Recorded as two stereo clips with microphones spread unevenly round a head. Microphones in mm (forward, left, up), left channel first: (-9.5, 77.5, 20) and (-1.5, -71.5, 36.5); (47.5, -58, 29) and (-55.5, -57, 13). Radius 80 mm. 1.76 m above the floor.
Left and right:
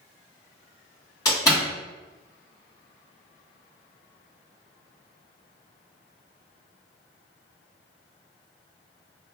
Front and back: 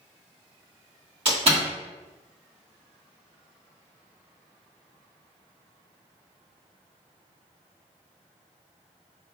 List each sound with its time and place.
1.2 s a door slam: 160° left, 1.3 m